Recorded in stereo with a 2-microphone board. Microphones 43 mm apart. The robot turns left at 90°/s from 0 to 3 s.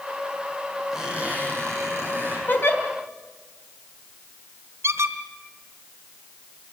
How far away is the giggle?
About 3 m.